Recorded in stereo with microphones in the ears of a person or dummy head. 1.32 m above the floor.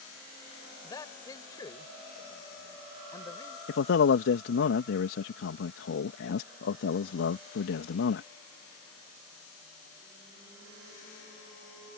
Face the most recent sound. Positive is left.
turn(degrees=70)  # may be behind; listen again after turning